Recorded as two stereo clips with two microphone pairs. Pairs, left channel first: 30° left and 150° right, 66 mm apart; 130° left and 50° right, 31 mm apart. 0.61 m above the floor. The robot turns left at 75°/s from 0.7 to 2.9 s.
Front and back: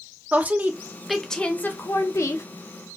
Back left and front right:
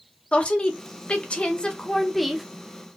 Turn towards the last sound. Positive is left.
turn(degrees=-10)